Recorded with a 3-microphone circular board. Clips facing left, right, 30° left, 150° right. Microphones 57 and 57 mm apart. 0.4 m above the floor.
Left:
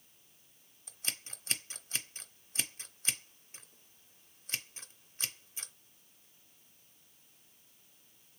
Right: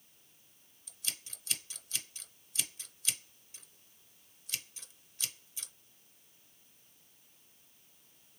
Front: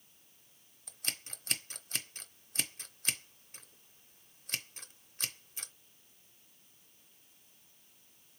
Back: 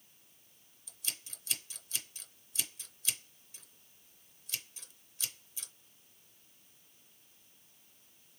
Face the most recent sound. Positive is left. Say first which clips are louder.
# left 2 dB, front 4 dB
turn(degrees=50)